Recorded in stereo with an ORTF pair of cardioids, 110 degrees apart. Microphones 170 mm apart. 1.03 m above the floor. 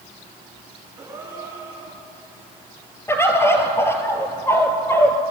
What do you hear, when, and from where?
1.0 s a gasp: 20° right, 9.5 m
3.1 s a bird: 15° left, 3.5 m